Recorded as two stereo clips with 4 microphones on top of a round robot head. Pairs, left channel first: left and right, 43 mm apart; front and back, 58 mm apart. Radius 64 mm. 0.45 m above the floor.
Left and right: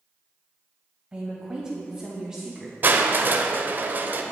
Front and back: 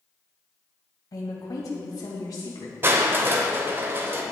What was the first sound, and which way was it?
A woman speaking, 15° right.